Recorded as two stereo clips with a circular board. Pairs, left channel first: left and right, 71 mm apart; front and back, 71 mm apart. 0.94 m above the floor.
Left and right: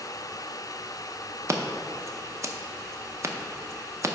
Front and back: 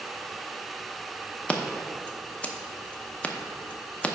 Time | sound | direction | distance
1.5 | scissors | 65° right | 0.6 m